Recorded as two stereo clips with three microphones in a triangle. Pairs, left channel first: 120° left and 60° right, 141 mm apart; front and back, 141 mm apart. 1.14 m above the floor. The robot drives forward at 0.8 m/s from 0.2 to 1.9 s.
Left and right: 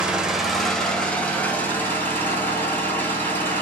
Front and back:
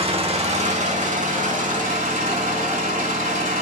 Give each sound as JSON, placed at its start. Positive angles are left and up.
{"t": 0.0, "sound": "an engine running", "azimuth_deg": -145, "distance_m": 1.3}